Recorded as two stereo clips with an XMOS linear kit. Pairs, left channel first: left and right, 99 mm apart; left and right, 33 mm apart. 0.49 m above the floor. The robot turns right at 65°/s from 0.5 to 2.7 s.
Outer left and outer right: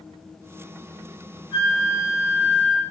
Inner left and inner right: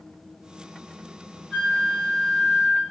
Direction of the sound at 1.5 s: 95° left.